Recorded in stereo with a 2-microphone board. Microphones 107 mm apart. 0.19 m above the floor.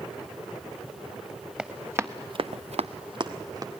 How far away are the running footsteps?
About 1.6 m.